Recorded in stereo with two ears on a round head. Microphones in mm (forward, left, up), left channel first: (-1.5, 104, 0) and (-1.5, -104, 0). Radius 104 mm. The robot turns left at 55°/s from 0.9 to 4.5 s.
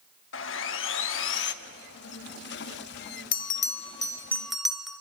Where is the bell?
65° left, 1.3 m; by 5.0 s straight ahead, 1.3 m.